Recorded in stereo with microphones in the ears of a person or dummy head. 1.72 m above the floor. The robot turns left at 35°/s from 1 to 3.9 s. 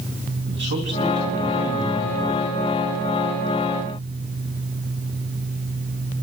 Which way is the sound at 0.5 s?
120° right.